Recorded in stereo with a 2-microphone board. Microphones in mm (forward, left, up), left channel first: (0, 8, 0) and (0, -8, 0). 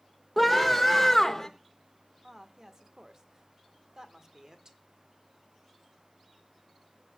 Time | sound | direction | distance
0.4 | a scream | 10° left (ahead or behind) | 1.9 m
2.2 | a woman speaking | 35° right (ahead or behind) | 1.6 m